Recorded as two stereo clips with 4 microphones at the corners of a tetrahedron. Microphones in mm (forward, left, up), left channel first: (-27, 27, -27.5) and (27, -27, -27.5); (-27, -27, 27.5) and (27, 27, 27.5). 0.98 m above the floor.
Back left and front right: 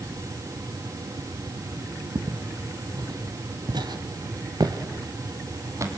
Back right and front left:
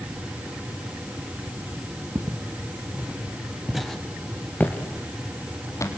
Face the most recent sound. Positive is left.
turn(degrees=-95)